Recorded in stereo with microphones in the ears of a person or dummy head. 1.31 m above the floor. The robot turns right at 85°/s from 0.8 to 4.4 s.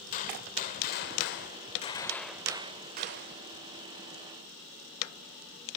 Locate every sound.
0.1 s a gunshot: 55° left, 1.6 m; by 3.4 s 85° right, 1.6 m